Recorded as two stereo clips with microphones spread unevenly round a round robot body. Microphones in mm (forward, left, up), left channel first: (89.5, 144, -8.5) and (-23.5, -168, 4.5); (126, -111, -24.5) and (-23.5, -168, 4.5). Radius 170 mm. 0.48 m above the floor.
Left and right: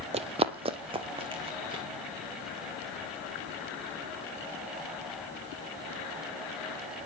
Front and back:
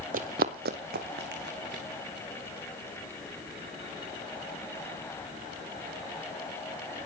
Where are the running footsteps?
Straight behind, 0.8 m; by 1.8 s 175° left, 3 m.